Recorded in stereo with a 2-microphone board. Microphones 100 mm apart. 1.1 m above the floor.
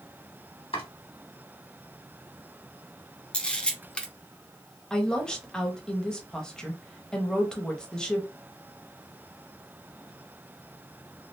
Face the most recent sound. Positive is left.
turn(degrees=5)  # may be behind; listen again after turning